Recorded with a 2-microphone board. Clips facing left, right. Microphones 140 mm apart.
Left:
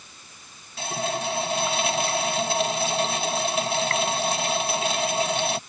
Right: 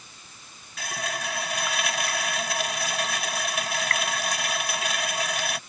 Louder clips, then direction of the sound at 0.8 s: Left 5 dB; 30° left (ahead or behind).